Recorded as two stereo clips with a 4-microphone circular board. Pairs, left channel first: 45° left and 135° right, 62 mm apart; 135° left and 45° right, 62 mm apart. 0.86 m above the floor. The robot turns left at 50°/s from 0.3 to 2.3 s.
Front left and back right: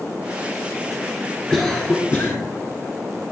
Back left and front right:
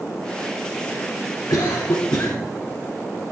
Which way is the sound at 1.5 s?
135° left.